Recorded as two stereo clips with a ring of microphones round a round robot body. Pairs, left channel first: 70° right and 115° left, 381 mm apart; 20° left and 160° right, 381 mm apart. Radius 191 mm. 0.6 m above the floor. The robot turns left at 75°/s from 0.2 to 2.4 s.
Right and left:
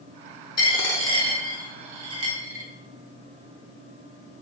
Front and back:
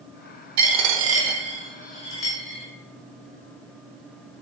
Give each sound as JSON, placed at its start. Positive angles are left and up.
{"t": 0.6, "sound": "a dropped coin", "azimuth_deg": -145, "distance_m": 0.9}